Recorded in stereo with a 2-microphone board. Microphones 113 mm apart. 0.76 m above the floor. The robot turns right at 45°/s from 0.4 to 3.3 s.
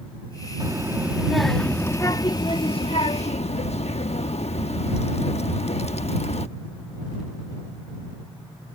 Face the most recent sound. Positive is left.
turn(degrees=85)